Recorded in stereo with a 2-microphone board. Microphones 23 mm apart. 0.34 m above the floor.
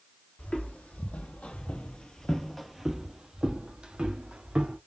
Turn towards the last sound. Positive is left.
turn(degrees=-50)  # may be behind; listen again after turning